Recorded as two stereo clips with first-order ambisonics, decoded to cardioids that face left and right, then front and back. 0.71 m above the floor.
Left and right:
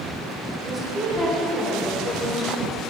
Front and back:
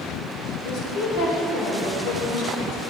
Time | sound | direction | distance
0.6 | a woman speaking | 25° right | 2.5 m